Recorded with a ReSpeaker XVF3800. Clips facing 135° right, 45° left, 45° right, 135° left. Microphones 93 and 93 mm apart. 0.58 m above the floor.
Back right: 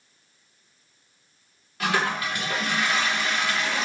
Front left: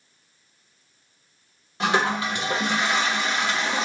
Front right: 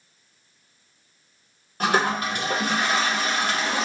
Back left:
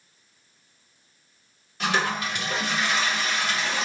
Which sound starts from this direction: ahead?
A toilet flushing, at 1.8 s.